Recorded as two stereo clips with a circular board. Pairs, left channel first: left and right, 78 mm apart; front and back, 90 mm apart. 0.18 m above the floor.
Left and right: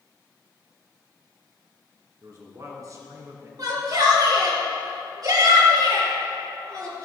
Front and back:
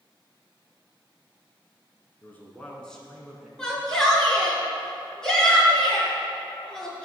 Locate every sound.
2.2 s a man speaking: 60° right, 2.5 m; by 3.5 s 100° right, 2 m
3.6 s a shout: 80° right, 3 m